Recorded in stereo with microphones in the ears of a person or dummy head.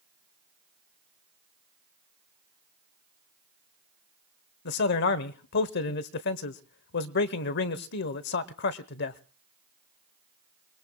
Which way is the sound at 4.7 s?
55° left (ahead or behind).